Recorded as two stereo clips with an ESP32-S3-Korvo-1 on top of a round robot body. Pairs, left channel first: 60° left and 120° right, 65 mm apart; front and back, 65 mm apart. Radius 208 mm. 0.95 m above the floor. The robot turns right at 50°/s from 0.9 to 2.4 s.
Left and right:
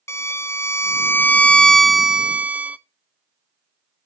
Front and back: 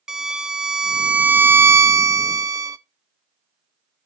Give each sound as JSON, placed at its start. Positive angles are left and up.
{"t": 0.1, "sound": "a violin", "azimuth_deg": 100, "distance_m": 0.6}